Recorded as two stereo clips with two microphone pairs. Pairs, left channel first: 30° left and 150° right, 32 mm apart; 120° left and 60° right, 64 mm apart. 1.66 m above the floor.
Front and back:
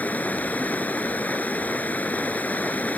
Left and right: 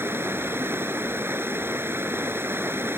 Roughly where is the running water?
Ahead.